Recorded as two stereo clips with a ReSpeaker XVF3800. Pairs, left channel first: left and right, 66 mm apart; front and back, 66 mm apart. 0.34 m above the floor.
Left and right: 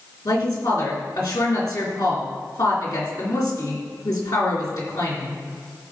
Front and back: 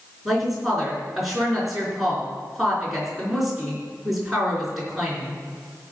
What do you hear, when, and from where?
0.2 s a woman speaking: 95° left, 4 m